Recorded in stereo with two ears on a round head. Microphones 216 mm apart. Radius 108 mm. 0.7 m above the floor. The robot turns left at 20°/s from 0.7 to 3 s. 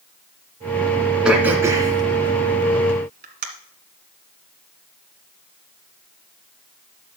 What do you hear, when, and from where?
1.2 s throat clearing: 5° right (ahead or behind), 1.8 m; by 3.5 s 40° right (ahead or behind), 1.8 m